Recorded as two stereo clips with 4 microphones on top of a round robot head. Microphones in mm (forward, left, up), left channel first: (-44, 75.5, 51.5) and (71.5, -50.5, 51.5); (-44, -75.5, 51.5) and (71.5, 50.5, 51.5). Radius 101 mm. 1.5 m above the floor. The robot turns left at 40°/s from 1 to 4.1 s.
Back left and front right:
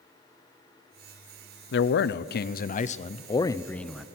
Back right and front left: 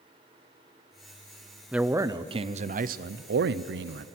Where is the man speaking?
135° left, 0.7 m; by 4.1 s 40° left, 0.7 m.